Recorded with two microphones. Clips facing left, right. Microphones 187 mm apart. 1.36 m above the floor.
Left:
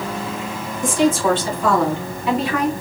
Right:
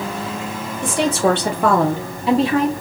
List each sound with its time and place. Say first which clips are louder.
0.8 s a woman speaking: left 1 dB; 65° right (ahead or behind), 1.3 m; by 2.7 s 25° right (ahead or behind), 1.6 m